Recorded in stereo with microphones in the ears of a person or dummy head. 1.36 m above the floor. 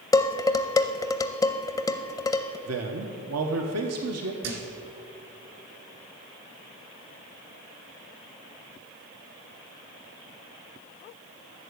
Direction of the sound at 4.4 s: 55° right (ahead or behind).